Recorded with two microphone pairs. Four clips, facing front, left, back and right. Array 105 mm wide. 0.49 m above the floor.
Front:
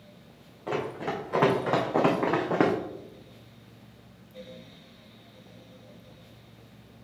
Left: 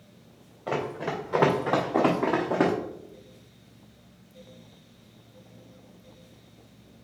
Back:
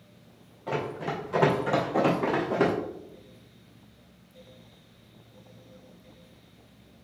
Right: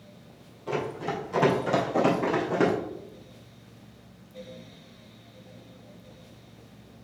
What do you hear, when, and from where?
0.7 s running footsteps: 70° left, 2.5 m; by 2.7 s 35° left, 2 m